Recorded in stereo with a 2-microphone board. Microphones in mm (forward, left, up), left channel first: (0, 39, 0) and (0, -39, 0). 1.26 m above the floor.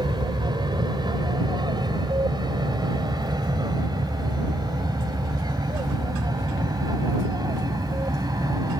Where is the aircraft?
70° right (ahead or behind); by 8.8 s 55° right (ahead or behind).